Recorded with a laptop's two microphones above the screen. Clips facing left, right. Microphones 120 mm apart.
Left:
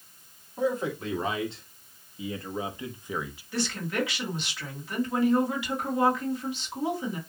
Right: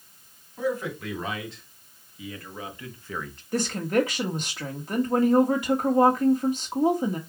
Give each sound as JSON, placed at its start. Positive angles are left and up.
{"t": 0.6, "sound": "a man speaking", "side_deg": 30, "distance_m": 3.0}
{"t": 3.5, "sound": "a woman speaking", "side_deg": -40, "distance_m": 1.3}